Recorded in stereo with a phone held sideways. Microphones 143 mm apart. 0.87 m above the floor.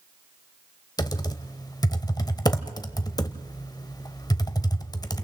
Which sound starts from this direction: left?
Typing on a keyboard, at 1.0 s.